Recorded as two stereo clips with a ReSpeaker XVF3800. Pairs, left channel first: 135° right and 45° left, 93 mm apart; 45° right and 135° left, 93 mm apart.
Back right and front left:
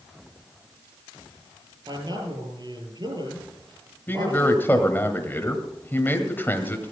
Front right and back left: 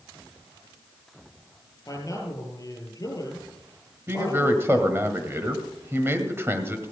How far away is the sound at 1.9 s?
About 7 m.